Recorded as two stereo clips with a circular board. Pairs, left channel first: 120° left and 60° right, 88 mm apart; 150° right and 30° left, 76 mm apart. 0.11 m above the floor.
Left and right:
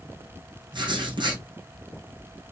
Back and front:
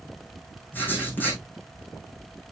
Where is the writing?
85° right, 4.5 m.